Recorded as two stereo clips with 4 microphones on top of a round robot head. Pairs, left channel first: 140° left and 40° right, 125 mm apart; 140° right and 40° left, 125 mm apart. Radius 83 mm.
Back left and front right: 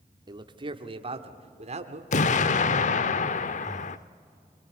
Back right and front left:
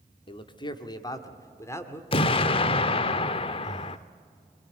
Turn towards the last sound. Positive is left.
turn(degrees=-160)